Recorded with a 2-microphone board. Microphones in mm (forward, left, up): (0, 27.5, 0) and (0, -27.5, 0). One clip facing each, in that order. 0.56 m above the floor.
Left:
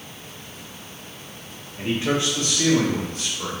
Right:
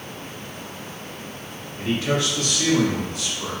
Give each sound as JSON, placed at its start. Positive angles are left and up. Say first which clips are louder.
{"t": 1.8, "sound": "a man speaking", "louder": "even", "side_deg": 15, "distance_m": 1.4}